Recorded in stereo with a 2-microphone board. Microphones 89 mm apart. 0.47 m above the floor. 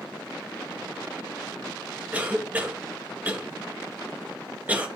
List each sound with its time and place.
2.1 s a cough: 20° right (ahead or behind), 2 m